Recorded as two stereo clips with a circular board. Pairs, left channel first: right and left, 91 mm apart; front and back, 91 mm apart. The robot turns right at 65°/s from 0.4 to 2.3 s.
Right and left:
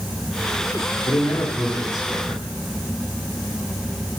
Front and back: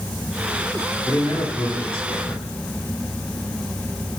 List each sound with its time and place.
1.1 s a man speaking: 55° right, 2.5 m; by 2.5 s 25° left, 2.5 m